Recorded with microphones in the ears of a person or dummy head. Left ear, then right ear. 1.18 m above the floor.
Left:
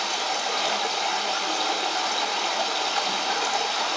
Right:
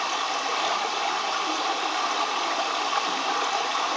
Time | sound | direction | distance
0.0 | running water | 35° right (ahead or behind) | 1.2 m